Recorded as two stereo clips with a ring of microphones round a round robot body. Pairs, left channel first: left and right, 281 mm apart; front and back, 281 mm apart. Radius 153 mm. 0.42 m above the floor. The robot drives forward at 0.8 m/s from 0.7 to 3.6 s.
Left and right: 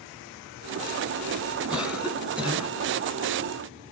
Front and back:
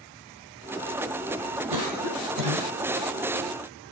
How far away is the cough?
About 3.5 m.